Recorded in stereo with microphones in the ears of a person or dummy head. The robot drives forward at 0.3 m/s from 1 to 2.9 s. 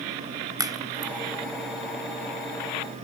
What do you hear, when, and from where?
0.6 s a crack: 15° right (ahead or behind); by 1.1 s 10° right (ahead or behind)